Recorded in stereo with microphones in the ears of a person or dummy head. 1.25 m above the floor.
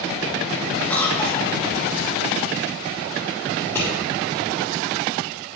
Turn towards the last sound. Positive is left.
turn(degrees=10)  # may be behind; listen again after turning